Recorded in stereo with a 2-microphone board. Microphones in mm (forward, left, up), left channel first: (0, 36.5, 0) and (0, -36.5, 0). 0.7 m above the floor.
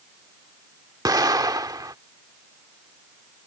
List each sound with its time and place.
1.1 s an explosion: 70° right (ahead or behind)